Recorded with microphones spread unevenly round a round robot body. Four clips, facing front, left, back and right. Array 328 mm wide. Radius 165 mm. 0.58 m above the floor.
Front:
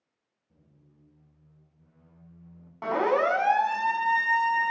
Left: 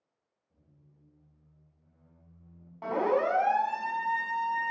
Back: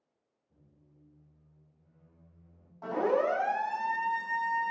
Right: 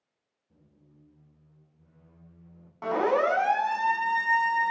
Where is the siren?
20° right, 8 m.